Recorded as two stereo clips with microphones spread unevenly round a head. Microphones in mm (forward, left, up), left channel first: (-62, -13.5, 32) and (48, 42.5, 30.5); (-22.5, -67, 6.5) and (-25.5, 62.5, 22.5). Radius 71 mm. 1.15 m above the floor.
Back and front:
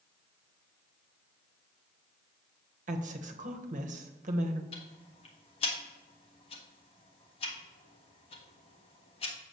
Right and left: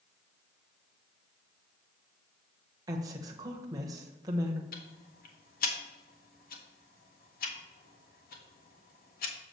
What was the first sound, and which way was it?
A woman speaking, 20° left.